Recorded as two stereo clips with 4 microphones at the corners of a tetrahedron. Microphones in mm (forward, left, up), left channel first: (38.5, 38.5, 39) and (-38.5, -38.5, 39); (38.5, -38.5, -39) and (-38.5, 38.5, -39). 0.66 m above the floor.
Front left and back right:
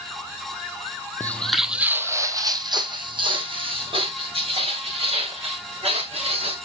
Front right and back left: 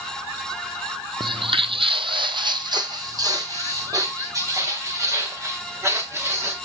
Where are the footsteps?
110° left, 1.0 m; by 6.5 s 160° right, 5 m.